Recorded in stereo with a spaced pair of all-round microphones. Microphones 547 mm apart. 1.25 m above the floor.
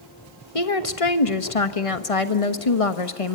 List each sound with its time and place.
0.6 s a woman speaking: 75° left (ahead or behind), 1.3 m